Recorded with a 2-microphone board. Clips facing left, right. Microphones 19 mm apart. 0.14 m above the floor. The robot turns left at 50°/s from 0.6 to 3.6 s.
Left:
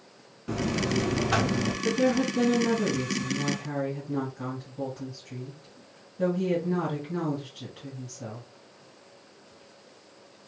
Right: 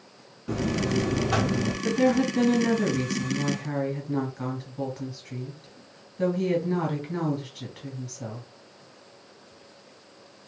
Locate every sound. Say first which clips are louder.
0.5 s a buzzer: right 1 dB; 10° left (ahead or behind), 0.8 m; by 1.7 s 20° left (ahead or behind), 0.8 m
1.8 s a woman speaking: right 2 dB; 35° right, 2 m; by 8.5 s 120° right, 2 m